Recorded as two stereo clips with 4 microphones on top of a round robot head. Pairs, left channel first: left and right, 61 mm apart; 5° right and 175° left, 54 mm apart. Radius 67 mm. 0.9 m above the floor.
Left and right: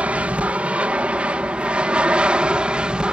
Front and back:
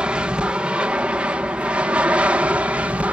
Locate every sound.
0.0 s an aircraft: 135° right; by 3.1 s 150° right